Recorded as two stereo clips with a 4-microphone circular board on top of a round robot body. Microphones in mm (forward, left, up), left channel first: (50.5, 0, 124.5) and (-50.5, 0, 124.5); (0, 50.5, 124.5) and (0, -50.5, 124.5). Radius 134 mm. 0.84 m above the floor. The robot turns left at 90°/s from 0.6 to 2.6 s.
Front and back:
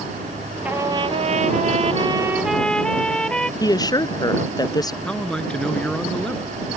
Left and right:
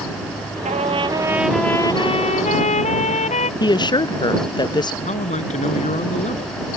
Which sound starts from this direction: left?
A man speaking, at 5.0 s.